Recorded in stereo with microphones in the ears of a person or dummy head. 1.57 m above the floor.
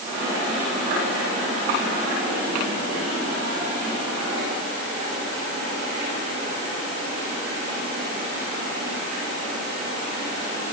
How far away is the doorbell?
No doorbell in this recording.